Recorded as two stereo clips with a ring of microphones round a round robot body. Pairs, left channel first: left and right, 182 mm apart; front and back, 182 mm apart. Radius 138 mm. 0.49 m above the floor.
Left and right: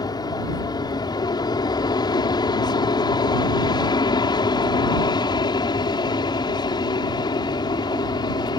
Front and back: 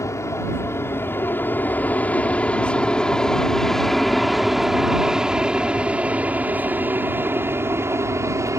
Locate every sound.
0.0 s an aircraft: 55° left; by 8.6 s 125° left